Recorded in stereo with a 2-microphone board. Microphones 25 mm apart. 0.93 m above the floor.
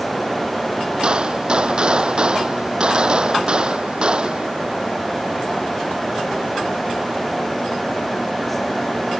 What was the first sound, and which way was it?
A gunshot, 35° right (ahead or behind).